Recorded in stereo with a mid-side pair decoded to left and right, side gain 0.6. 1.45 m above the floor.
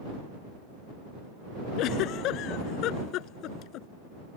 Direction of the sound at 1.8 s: 65° left.